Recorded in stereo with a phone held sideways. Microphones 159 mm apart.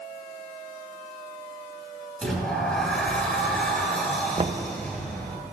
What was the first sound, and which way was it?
A sliding door, 5° left (ahead or behind).